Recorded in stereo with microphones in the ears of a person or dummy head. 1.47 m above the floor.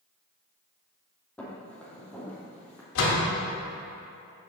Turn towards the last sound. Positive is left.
turn(degrees=75)  # may be behind; listen again after turning